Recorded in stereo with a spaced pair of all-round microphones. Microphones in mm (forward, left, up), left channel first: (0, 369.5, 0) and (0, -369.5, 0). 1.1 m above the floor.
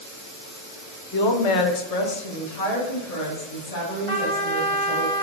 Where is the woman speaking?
30° left (ahead or behind), 0.5 m; by 5.1 s 50° left (ahead or behind), 2.5 m.